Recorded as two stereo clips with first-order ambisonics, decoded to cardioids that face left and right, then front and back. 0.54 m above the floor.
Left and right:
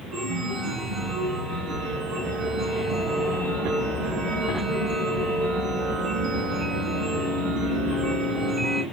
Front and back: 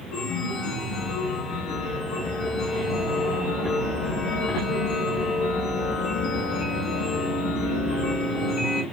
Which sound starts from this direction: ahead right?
A chime, at 0.1 s.